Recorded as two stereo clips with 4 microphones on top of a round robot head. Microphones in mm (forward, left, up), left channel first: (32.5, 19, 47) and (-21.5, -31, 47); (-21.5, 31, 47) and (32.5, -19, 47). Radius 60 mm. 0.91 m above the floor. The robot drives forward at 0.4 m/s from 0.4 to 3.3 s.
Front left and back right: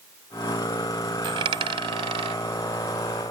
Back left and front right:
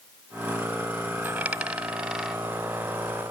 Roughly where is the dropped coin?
Behind right.